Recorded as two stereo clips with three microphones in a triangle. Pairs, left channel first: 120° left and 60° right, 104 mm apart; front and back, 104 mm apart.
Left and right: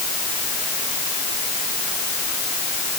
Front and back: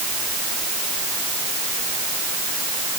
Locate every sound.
Only background noise.